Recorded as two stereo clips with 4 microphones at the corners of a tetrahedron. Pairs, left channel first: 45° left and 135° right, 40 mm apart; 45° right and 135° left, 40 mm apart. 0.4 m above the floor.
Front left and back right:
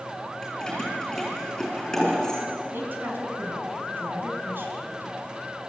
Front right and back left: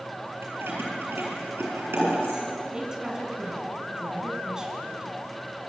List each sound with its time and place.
0.4 s keys jangling: 120° left, 7 m
2.7 s a woman speaking: 150° right, 4 m